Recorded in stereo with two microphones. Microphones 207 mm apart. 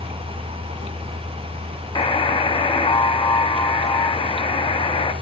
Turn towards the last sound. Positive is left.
turn(degrees=25)  # may be behind; listen again after turning